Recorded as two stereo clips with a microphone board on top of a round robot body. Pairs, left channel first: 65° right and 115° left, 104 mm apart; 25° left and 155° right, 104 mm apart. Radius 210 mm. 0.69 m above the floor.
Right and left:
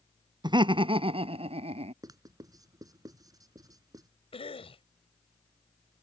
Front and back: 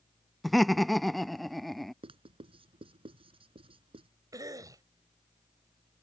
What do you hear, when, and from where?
0.4 s laughter: 115° left; by 1.9 s 110° left
2.0 s writing: 170° left
4.3 s a cough: 100° right